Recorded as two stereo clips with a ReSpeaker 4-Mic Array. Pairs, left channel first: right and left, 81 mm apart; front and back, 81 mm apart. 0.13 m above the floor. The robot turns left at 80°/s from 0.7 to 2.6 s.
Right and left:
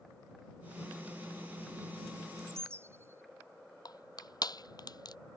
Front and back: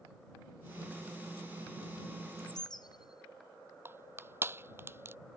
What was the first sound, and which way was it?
A bird, 55° left.